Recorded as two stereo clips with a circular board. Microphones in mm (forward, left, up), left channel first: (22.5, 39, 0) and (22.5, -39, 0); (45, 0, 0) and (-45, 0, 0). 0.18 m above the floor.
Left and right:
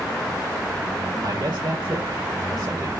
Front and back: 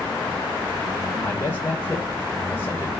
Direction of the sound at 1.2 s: 65° right.